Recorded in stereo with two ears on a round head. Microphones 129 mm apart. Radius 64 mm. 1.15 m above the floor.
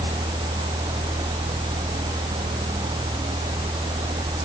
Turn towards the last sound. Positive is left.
No sound to turn to.